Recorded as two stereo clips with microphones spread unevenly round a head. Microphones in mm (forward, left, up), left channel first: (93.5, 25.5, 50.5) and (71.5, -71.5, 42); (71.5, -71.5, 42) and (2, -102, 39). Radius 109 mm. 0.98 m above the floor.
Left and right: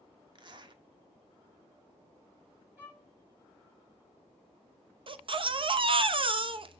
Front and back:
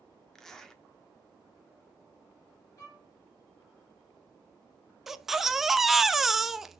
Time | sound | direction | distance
0.3 | a zipper | 60° right | 1.6 m
2.8 | a violin | 25° right | 6 m
5.1 | a baby crying | 70° right | 0.9 m